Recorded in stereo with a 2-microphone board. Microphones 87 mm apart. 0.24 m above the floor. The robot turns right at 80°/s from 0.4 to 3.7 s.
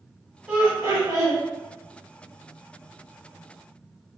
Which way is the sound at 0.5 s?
155° right.